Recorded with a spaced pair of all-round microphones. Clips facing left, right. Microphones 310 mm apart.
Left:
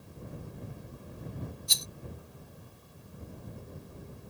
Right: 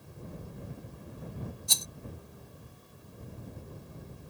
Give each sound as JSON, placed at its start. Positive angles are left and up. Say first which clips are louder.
{"t": 1.7, "sound": "a rattle", "louder": "right 1 dB", "side_deg": -60}